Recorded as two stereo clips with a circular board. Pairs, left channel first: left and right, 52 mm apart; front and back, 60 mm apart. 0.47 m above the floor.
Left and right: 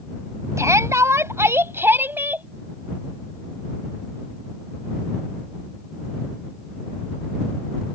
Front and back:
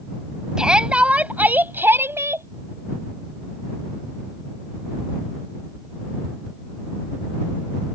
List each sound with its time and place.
0.6 s a shout: 105° right; by 2.5 s 145° right